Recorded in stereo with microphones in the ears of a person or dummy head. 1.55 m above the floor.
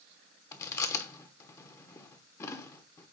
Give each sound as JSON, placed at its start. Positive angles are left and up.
{"t": 0.5, "sound": "chewing", "side_deg": 15, "distance_m": 0.9}